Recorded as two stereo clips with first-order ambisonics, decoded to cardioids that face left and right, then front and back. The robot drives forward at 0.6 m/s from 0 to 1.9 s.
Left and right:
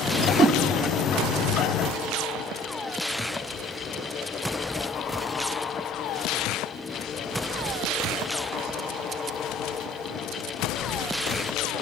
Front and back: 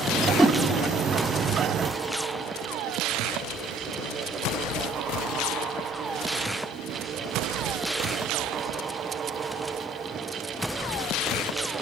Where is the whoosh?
55° right, 0.7 m; by 0.6 s 105° right, 0.7 m.